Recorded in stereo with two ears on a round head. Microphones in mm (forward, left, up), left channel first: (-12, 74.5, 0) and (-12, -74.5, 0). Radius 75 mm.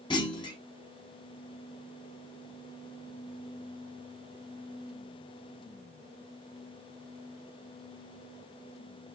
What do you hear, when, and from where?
0.1 s a clunk: 30° left (ahead or behind), 0.9 m